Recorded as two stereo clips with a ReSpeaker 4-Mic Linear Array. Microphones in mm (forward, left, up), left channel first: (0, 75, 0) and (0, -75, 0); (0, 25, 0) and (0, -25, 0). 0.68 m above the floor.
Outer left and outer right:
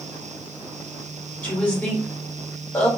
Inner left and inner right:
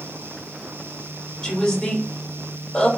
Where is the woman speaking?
10° left (ahead or behind), 2.5 m.